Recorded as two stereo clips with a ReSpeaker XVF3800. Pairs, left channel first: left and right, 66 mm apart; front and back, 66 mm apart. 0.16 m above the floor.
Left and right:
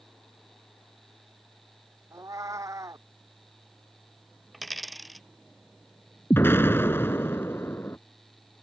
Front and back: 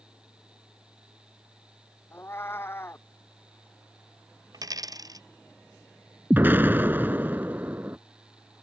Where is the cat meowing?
55° right.